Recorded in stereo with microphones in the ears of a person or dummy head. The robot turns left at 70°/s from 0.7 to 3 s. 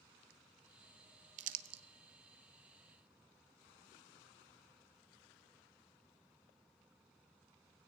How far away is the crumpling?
About 0.7 m.